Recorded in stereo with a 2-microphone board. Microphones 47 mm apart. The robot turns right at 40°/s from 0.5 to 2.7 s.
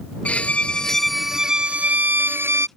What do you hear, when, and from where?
0.2 s a violin: 150° left; by 2.7 s 120° right